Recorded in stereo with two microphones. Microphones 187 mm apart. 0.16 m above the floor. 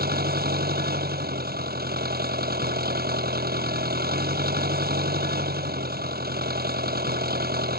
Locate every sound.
0.0 s an engine running: 55° right (ahead or behind)